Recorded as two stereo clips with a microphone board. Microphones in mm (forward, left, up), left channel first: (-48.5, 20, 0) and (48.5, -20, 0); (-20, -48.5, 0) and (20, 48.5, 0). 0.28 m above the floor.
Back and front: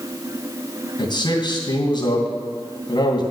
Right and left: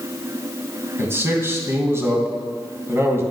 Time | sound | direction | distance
1.0 | a man speaking | 130° left | 2.5 m